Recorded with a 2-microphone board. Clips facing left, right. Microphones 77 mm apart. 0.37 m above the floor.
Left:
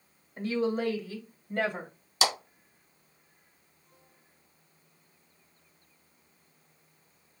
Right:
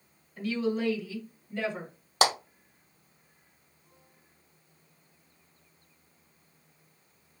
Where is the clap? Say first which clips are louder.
Right 4 dB; 55° right (ahead or behind), 1.6 m.